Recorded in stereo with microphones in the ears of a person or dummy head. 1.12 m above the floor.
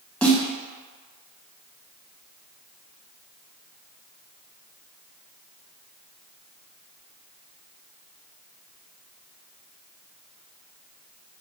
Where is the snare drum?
5° left (ahead or behind), 1.5 m.